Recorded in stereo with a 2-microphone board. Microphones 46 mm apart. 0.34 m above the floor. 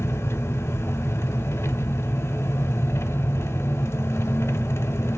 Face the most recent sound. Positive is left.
turn(degrees=70)  # may be behind; listen again after turning